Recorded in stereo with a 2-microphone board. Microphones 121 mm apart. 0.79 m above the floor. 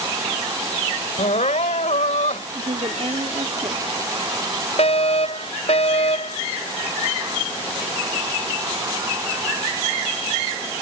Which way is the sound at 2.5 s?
55° right (ahead or behind).